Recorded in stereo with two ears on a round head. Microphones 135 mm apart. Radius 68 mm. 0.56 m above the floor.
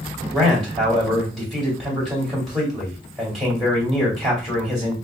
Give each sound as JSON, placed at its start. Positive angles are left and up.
{"t": 0.3, "sound": "a man speaking", "side_deg": 0, "distance_m": 2.5}